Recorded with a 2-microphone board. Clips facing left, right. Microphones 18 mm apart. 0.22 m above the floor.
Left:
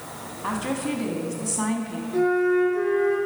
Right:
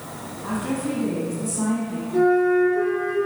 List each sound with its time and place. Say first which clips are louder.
0.4 s a woman speaking: right 1 dB; 40° left (ahead or behind), 1.4 m
2.1 s a flute: right 3 dB; 10° right (ahead or behind), 3 m